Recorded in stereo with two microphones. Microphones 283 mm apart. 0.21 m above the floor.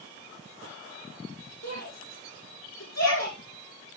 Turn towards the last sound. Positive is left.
turn(degrees=65)  # may be behind; listen again after turning